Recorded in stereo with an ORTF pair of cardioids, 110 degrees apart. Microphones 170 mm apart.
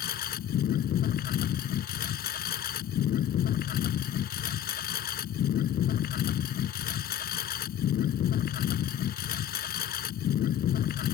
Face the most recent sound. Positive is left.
turn(degrees=60)